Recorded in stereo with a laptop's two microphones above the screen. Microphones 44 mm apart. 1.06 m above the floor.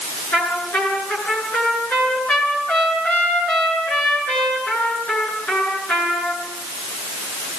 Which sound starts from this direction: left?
A trumpet, at 0.3 s.